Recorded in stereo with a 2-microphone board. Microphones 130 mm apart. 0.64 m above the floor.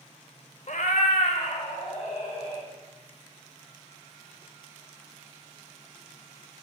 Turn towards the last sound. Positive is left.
turn(degrees=60)  # may be behind; listen again after turning